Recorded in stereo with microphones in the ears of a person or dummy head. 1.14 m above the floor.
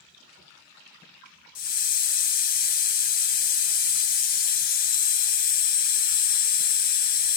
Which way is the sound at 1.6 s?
55° left (ahead or behind).